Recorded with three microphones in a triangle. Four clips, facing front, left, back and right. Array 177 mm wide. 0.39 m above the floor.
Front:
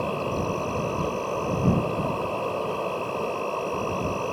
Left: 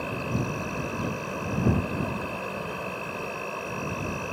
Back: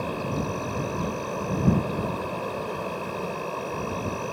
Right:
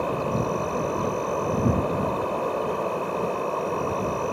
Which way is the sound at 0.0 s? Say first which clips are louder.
Right 6 dB, front 2 dB; 65° right.